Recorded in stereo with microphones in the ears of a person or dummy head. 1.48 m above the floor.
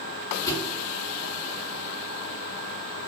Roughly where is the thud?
Left.